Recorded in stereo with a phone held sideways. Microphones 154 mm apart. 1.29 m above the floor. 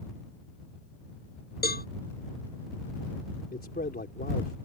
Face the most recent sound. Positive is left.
turn(degrees=85)